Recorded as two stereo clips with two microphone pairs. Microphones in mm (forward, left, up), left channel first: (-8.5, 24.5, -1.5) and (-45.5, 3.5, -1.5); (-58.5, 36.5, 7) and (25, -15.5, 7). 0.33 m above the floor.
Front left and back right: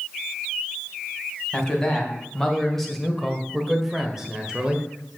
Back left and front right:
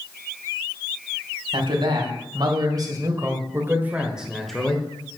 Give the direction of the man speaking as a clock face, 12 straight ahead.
2 o'clock.